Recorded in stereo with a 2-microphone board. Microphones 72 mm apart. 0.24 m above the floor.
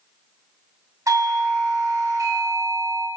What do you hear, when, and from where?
1.1 s a doorbell: 45° right (ahead or behind), 2.5 m